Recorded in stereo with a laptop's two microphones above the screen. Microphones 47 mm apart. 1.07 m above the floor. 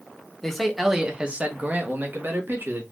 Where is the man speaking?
10° left (ahead or behind), 0.8 m; by 2.8 s 60° right (ahead or behind), 1.4 m.